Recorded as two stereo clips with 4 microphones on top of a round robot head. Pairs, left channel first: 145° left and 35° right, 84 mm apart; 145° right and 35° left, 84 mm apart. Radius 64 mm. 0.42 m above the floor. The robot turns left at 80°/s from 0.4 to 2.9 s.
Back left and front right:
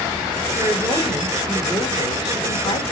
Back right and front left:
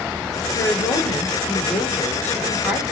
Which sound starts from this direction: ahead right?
A woman speaking, at 0.6 s.